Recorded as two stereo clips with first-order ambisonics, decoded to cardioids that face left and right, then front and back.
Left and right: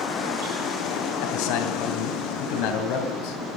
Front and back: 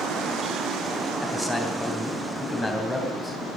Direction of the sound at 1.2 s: 80° left.